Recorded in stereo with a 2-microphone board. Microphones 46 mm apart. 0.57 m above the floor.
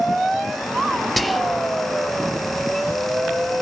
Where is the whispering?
Centre (ahead or behind), 0.6 m.